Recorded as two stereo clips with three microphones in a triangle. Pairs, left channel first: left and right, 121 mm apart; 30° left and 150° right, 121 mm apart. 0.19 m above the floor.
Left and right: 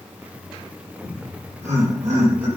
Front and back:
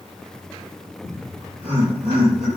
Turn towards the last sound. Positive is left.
turn(degrees=-170)